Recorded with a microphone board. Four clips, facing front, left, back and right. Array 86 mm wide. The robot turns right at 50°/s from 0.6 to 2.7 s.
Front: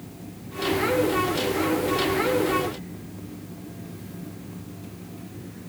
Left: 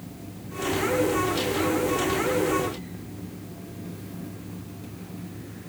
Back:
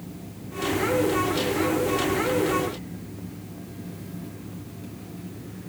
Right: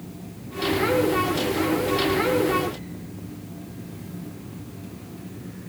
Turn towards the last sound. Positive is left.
No sound to turn to.